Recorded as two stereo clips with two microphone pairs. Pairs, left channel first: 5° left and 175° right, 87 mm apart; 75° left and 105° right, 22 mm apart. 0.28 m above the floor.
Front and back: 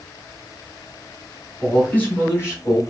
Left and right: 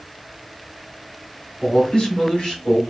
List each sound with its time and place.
1.6 s a man speaking: 80° left, 1.7 m; by 2.8 s 30° left, 1.8 m